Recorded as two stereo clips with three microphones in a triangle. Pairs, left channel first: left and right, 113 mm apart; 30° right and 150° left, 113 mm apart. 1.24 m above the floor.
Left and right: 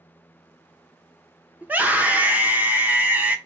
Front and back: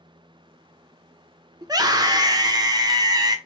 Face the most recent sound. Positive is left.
turn(degrees=-165)